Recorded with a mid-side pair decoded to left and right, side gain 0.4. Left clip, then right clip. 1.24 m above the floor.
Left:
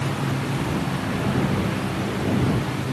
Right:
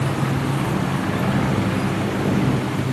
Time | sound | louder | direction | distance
0.0 | a motorcycle | right 3 dB | 40° right | ?